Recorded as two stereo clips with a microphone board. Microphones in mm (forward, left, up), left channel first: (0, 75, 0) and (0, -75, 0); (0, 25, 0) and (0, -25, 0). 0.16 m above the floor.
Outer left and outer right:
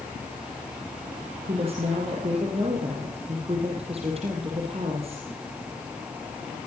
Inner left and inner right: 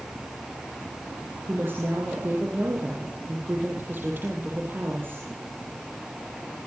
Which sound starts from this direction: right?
A woman speaking, at 1.5 s.